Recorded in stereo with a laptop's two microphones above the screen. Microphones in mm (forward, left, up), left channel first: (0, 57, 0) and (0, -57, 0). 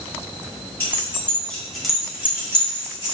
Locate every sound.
0.8 s keys jangling: 20° left (ahead or behind), 1.7 m; by 3.1 s 35° right (ahead or behind), 1.4 m